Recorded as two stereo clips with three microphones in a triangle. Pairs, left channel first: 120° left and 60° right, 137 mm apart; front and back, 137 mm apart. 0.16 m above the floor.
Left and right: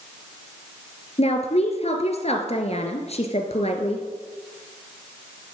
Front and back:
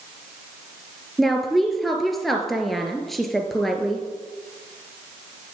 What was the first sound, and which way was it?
A woman speaking, 90° left.